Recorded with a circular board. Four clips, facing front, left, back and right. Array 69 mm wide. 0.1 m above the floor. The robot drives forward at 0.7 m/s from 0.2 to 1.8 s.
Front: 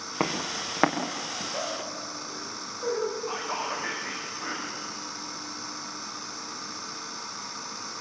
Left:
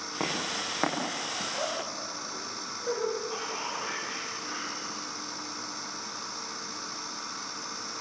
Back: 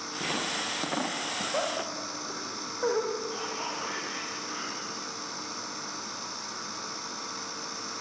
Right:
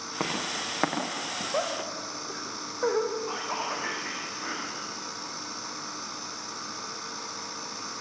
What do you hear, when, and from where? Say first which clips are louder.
0.2 s footsteps: right 1 dB, front 3 dB; 5° right, 6 m
1.5 s laughter: right 6 dB, back 3 dB; 115° right, 7 m
3.3 s whispering: right 3 dB, front 3 dB; 40° right, 5.5 m